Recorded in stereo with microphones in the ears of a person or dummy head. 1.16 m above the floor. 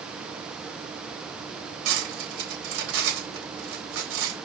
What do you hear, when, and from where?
1.9 s cutlery clinking: 85° right, 3.5 m